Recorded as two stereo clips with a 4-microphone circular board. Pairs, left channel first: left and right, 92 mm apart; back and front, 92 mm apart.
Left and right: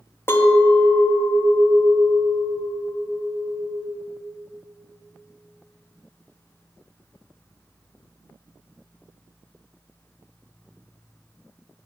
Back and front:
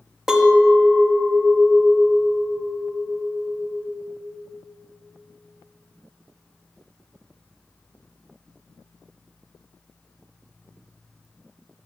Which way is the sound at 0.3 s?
80° left.